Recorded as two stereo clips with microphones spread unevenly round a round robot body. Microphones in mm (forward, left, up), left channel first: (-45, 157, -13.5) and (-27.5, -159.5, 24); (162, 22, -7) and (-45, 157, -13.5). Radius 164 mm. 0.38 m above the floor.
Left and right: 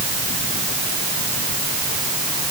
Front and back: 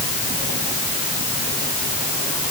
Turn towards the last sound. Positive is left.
No sound to turn to.